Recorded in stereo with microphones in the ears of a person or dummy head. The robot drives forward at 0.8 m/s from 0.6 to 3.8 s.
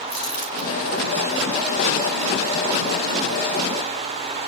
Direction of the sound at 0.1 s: 40° left (ahead or behind).